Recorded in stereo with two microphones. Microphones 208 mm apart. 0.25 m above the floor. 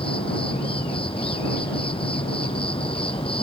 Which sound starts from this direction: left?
An insect, at 0.0 s.